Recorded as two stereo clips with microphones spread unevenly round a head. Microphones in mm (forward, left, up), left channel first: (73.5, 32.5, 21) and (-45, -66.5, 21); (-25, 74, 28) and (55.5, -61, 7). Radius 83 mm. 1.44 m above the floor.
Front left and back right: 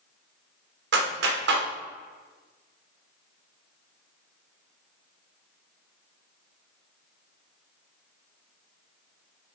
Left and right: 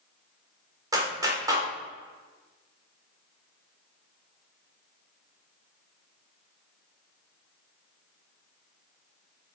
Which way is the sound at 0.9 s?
130° right.